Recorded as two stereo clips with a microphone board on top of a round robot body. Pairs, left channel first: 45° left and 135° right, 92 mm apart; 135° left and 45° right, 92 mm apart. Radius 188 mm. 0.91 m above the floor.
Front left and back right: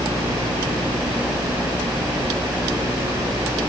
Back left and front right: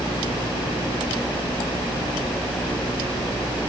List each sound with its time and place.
Only background noise.